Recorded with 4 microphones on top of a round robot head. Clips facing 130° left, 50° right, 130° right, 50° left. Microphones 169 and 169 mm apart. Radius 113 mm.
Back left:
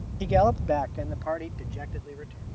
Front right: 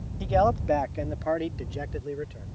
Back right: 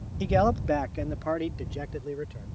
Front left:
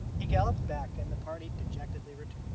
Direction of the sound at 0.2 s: 165° right.